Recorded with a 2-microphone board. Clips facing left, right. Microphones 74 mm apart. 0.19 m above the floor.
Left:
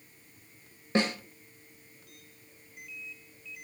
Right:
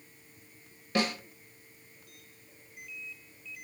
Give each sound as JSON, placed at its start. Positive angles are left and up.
{"t": 0.9, "sound": "a snare drum", "side_deg": 30, "distance_m": 0.6}